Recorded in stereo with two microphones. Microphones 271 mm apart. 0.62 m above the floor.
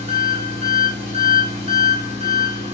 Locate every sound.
0.0 s an engine running: 25° right (ahead or behind), 1.1 m